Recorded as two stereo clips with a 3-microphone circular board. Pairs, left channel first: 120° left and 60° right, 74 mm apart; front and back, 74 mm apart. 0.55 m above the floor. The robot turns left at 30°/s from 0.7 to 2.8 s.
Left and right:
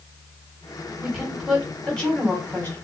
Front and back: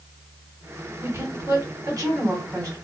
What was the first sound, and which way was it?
A woman speaking, 140° right.